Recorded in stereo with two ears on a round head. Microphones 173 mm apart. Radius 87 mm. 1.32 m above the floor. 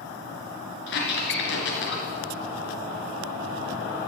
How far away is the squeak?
About 2.5 m.